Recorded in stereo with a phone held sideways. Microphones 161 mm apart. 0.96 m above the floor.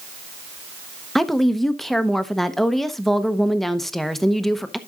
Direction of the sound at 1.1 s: Centre (ahead or behind).